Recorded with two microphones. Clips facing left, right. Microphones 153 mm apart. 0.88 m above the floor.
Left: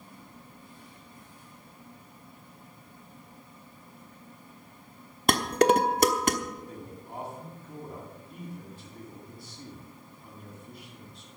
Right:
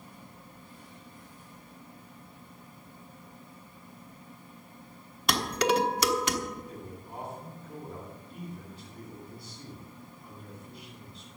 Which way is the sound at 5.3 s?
50° left (ahead or behind).